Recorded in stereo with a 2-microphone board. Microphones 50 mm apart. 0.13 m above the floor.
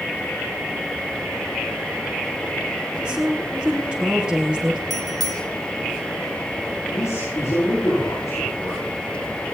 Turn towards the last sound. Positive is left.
turn(degrees=80)